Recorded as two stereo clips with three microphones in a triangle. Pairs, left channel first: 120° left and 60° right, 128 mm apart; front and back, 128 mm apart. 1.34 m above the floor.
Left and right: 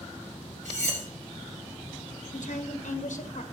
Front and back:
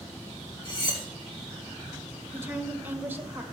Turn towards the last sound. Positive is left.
turn(degrees=105)